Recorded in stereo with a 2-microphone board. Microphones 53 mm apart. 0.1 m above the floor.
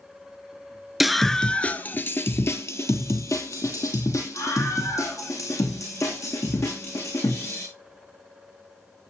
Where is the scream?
5° right (ahead or behind), 1.3 m; by 7.6 s 75° left (ahead or behind), 7 m.